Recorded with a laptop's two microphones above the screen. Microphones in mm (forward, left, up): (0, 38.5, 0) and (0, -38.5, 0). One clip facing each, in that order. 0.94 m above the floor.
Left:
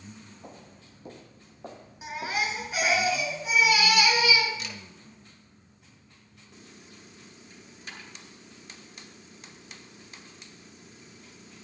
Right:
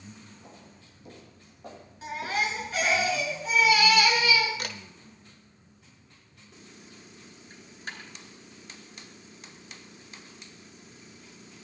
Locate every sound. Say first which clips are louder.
0.4 s footsteps: left 3 dB; 50° left (ahead or behind), 1.9 m; by 3.0 s 10° left (ahead or behind), 3 m
2.0 s a baby crying: right 1 dB; 10° left (ahead or behind), 3.5 m
4.6 s a camera shutter: right 3 dB; 55° right (ahead or behind), 1.0 m
7.5 s a dropped coin: right 4 dB; 45° right (ahead or behind), 4 m